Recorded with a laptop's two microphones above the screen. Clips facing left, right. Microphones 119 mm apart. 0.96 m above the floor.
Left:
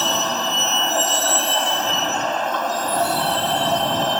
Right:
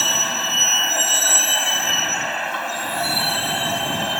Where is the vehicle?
25° left (ahead or behind).